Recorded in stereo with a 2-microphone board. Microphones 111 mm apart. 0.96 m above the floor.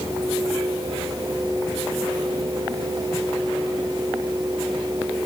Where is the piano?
I don't hear a piano.